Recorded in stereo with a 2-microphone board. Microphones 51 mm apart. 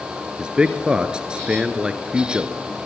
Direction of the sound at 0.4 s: 20° right (ahead or behind).